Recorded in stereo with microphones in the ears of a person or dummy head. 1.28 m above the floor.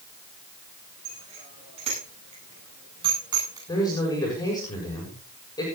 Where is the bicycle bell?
35° right (ahead or behind), 10 m; by 3.6 s 20° right (ahead or behind), 8.5 m.